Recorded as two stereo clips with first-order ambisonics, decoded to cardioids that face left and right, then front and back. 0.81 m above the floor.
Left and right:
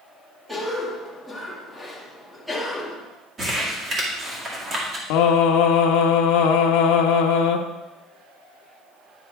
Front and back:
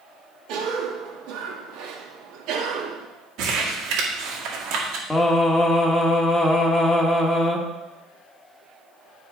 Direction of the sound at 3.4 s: 155° right.